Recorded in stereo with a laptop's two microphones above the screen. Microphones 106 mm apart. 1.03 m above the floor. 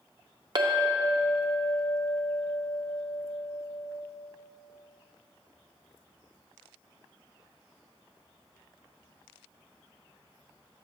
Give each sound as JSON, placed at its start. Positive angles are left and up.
{"t": 0.6, "sound": "a clink", "side_deg": -50, "distance_m": 0.5}